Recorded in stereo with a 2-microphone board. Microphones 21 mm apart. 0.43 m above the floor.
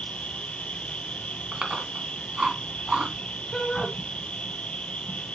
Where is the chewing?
45° right (ahead or behind), 2.0 m.